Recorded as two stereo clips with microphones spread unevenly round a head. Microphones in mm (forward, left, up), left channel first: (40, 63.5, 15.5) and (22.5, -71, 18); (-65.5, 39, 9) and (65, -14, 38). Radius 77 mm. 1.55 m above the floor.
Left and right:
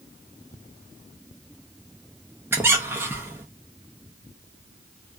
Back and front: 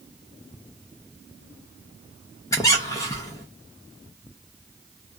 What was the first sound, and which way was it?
A squeak, 135° right.